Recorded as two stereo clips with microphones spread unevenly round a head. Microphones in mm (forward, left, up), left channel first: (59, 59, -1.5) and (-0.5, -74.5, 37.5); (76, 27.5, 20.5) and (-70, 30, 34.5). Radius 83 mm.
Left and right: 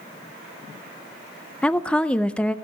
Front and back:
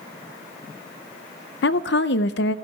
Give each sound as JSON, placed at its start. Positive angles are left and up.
{"t": 1.6, "sound": "a woman speaking", "azimuth_deg": -20, "distance_m": 0.5}